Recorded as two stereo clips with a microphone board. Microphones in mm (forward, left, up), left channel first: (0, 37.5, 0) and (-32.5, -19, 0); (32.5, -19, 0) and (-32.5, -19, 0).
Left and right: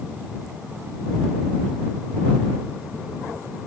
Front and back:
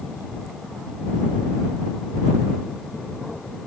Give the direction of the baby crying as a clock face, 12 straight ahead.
I don't hear a baby crying.